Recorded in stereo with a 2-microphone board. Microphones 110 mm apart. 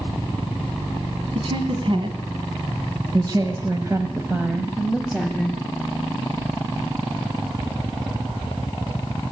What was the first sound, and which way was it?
A woman speaking, 60° right (ahead or behind).